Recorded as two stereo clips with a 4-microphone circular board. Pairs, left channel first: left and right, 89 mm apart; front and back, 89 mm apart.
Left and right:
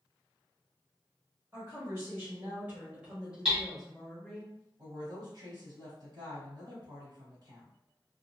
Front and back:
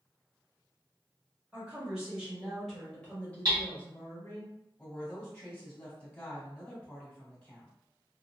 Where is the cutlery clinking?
No cutlery clinking in this recording.